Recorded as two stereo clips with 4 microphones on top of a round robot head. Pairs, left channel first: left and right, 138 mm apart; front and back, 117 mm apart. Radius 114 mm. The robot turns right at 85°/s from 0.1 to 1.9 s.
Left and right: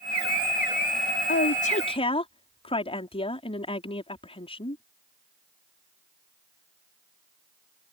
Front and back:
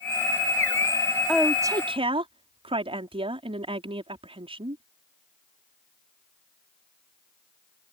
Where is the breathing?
No breathing in this recording.